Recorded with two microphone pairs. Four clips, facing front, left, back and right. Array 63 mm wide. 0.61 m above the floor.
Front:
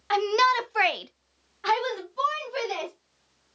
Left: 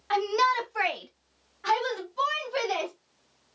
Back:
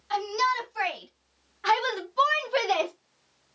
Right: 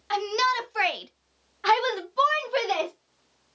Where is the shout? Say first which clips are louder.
Left 1 dB, front 4 dB; 10° left, 1.3 m; by 2.9 s 165° right, 1.4 m.